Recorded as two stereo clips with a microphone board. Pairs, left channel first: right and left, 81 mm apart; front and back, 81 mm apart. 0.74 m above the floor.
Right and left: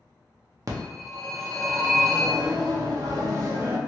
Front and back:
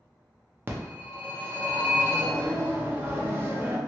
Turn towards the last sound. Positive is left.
turn(degrees=120)